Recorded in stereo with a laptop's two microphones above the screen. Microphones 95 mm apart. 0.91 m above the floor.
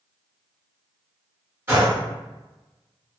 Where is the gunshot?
25° right (ahead or behind), 1.6 m.